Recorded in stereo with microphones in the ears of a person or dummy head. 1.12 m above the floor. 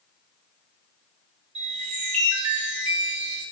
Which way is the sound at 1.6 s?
35° right (ahead or behind).